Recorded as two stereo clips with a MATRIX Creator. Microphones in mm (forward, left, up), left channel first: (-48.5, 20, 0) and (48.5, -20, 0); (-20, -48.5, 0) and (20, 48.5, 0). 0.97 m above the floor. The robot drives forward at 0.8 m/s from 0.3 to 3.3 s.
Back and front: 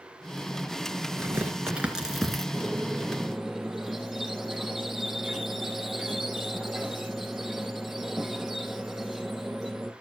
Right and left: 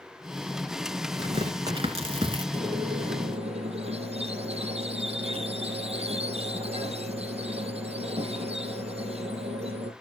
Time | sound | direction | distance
1.2 | tearing paper | 45° left | 2 m
2.5 | a squeak | 60° left | 3.5 m